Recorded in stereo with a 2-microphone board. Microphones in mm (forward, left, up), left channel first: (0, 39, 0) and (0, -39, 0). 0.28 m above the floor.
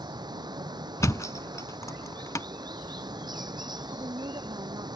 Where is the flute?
I don't hear a flute.